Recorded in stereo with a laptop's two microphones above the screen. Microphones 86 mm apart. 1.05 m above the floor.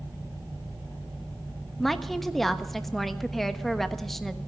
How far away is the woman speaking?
About 1.2 m.